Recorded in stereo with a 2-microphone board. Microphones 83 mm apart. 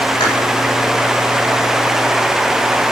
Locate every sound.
0.2 s chewing: 70° left (ahead or behind), 8.5 m